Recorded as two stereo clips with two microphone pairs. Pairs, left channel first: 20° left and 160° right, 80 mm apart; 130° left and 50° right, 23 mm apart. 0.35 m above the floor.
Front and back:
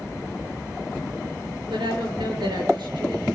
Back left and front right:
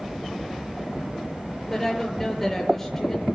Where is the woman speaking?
150° right, 6 m.